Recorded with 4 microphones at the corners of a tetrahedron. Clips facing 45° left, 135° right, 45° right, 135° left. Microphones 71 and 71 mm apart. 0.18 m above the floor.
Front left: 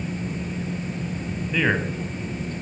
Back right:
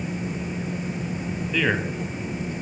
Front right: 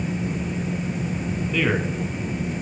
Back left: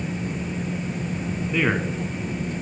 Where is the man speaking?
105° left, 1.1 m.